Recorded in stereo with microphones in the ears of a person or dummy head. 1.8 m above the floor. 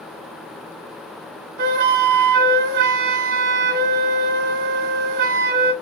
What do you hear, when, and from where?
1.6 s a flute: 55° right (ahead or behind), 1.0 m